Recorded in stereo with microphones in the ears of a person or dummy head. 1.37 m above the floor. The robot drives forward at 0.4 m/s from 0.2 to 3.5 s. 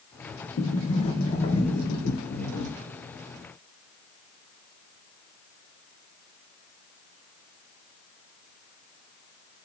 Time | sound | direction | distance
0.6 | a sliding door | 40° left (ahead or behind) | 0.8 m